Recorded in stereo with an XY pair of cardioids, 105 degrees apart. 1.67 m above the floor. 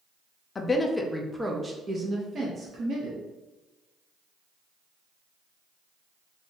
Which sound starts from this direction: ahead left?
A woman speaking, at 0.6 s.